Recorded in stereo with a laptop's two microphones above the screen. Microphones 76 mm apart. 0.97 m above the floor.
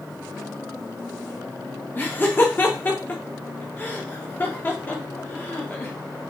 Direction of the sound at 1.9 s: 25° left (ahead or behind).